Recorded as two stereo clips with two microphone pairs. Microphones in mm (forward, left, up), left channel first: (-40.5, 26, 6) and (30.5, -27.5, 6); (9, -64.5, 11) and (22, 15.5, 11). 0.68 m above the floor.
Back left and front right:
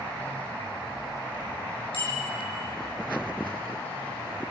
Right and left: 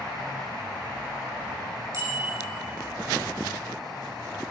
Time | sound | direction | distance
1.9 | a bicycle bell | 130° left | 7.5 m